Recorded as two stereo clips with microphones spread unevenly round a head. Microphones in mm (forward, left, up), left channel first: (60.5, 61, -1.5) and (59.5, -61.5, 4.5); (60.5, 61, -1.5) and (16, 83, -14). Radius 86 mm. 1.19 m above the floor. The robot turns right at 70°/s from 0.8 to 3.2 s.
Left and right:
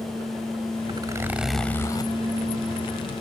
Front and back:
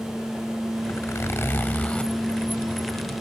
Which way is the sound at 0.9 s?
45° right.